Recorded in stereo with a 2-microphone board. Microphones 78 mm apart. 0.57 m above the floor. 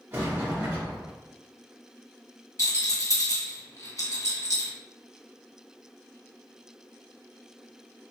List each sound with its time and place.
0.1 s a sliding door: 30° right (ahead or behind), 1.0 m
2.6 s a rattle: 50° left (ahead or behind), 1.2 m